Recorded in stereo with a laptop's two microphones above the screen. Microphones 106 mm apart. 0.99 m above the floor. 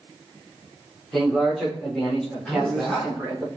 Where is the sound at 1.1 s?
5° left (ahead or behind), 3.5 m; by 3.5 s centre (ahead or behind), 5 m.